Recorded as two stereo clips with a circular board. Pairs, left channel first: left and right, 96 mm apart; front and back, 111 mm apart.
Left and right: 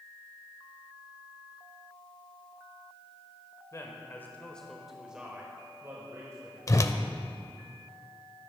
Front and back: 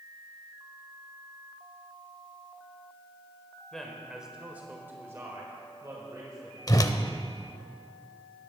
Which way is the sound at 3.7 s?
85° left.